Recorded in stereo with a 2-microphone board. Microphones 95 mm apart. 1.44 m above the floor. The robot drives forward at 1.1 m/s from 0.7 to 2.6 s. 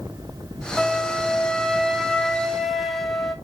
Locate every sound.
0.8 s a flute: 5° left (ahead or behind), 0.6 m; by 3.3 s centre (ahead or behind), 2.5 m